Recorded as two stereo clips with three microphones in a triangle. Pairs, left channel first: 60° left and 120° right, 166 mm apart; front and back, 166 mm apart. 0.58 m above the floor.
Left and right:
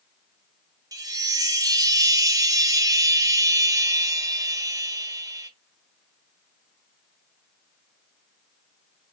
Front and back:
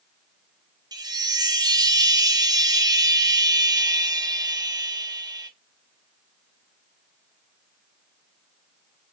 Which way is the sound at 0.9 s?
155° right.